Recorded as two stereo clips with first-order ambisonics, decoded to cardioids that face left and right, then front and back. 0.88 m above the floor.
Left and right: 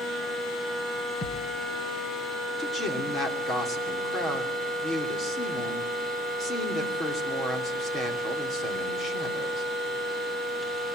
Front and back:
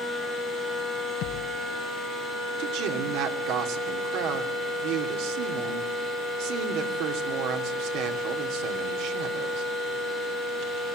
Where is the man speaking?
160° left, 3 m.